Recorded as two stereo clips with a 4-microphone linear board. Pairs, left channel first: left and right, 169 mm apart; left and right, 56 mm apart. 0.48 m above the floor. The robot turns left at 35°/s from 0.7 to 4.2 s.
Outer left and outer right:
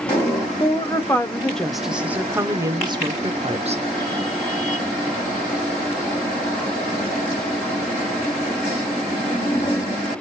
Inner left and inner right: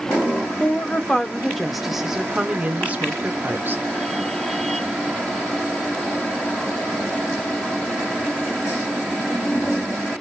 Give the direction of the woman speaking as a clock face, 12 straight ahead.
11 o'clock.